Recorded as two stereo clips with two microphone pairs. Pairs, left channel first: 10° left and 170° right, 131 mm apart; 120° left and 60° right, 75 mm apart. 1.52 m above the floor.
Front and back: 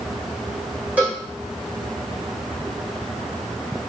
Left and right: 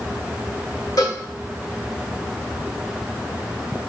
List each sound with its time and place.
1.0 s a cowbell: 115° left, 2 m